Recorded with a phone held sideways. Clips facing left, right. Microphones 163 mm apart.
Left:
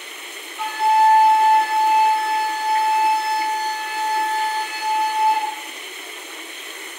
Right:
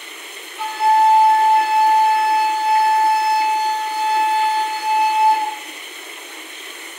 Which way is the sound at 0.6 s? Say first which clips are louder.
Right 2 dB; 10° right (ahead or behind).